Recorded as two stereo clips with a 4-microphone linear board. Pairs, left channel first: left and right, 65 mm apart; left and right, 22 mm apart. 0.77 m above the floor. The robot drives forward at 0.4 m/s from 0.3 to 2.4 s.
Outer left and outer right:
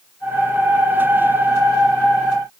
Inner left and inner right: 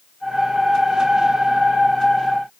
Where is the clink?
I don't hear a clink.